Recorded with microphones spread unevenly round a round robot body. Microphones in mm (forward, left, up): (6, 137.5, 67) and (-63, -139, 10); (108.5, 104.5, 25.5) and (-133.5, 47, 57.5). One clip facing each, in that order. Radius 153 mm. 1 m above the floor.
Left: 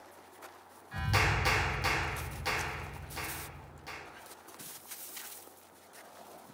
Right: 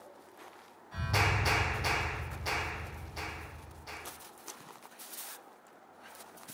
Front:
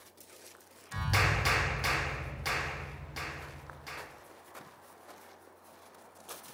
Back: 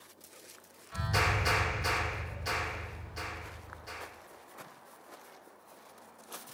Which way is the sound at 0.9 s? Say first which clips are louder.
Even, even; 10° left.